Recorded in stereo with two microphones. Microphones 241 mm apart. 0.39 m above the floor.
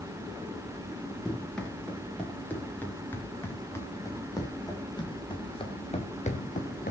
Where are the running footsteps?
5° left (ahead or behind), 8.5 m; by 6.9 s 40° left (ahead or behind), 3 m.